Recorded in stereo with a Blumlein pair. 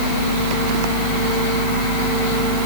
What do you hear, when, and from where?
Only background noise.